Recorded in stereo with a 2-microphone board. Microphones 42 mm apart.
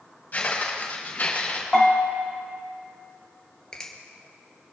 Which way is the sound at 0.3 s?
40° left (ahead or behind).